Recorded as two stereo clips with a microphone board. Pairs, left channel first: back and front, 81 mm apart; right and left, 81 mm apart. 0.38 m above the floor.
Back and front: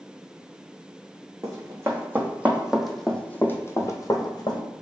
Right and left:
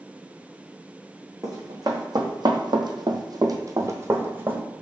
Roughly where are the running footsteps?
Ahead left.